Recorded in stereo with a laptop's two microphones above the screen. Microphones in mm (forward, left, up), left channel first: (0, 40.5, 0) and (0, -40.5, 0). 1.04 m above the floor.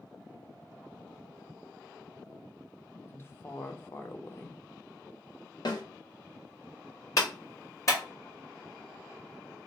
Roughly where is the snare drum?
Left.